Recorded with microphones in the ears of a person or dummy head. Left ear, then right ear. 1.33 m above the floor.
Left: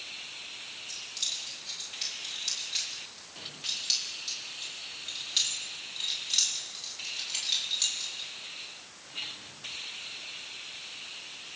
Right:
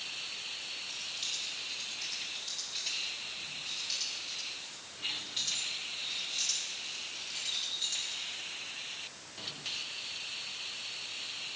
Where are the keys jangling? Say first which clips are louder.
Left 5 dB; 25° left (ahead or behind), 5.5 m; by 8.3 s 55° left (ahead or behind), 8.5 m.